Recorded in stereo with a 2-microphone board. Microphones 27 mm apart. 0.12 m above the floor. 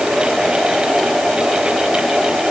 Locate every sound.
Only background noise.